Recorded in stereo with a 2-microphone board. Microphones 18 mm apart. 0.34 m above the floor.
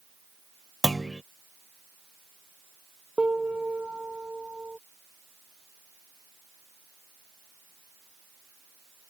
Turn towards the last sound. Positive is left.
turn(degrees=-80)